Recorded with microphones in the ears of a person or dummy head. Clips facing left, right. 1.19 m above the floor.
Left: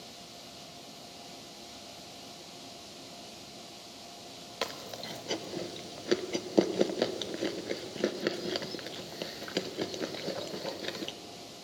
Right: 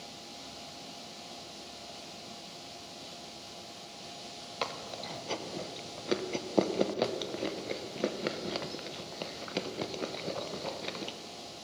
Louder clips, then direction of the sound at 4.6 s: Even; 15° left (ahead or behind).